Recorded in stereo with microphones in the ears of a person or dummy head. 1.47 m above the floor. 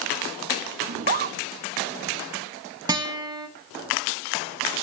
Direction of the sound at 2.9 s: 15° right (ahead or behind).